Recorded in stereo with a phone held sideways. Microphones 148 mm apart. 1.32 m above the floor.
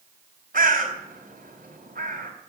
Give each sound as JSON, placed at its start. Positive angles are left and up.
{"t": 0.5, "sound": "a bird", "side_deg": -75, "distance_m": 4.0}